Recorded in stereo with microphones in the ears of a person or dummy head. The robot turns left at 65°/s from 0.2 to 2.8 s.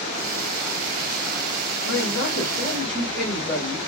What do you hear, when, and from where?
1.9 s a man speaking: 70° left, 2 m; by 3.8 s 10° left, 2 m